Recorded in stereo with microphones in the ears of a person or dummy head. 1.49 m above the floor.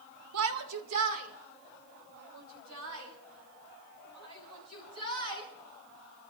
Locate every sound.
0.3 s a shout: 75° right (ahead or behind), 1.0 m; by 5.5 s 85° right, 8 m